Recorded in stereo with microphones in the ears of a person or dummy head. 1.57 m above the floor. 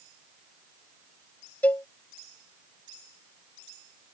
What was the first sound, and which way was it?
A cowbell, 10° left (ahead or behind).